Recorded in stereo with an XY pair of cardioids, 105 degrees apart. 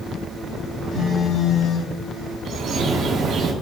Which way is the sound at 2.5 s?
60° right.